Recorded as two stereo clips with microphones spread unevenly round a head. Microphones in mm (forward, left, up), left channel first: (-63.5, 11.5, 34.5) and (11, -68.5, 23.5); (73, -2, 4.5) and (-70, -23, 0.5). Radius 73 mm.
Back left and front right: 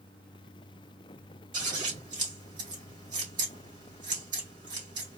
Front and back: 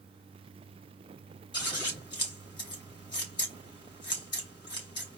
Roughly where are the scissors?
Ahead right.